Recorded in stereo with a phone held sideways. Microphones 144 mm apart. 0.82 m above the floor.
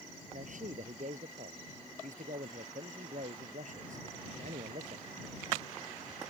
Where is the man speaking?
65° right (ahead or behind).